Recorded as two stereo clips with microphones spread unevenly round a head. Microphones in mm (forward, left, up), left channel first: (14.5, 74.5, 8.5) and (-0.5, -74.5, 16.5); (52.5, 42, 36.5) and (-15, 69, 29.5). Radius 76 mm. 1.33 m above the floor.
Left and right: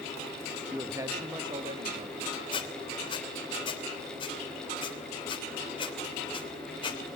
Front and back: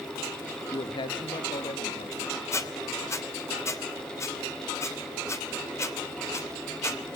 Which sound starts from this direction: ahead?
A man speaking, at 0.7 s.